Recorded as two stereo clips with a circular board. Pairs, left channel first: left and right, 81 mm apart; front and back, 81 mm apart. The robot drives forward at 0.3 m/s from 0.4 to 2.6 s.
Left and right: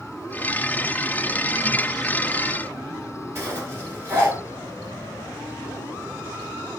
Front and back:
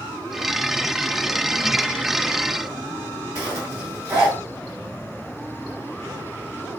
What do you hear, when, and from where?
3.4 s a zipper: 135° right, 1.8 m